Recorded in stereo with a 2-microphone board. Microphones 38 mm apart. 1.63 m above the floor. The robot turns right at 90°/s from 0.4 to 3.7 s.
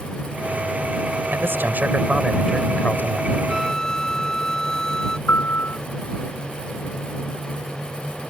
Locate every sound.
1.3 s a man speaking: 95° right; by 3.4 s 95° left
3.5 s a flute: 5° right (ahead or behind); by 5.2 s 15° left (ahead or behind)
5.3 s a piano: 65° left (ahead or behind)